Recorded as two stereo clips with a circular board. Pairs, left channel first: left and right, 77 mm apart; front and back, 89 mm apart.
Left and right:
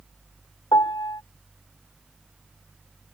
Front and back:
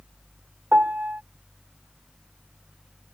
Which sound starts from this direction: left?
A piano, at 0.7 s.